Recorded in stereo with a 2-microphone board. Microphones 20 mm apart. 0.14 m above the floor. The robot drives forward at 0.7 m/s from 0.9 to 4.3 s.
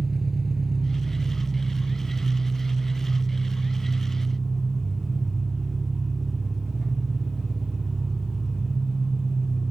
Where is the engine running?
25° right (ahead or behind), 0.8 m; by 9.7 s 5° right (ahead or behind), 3 m.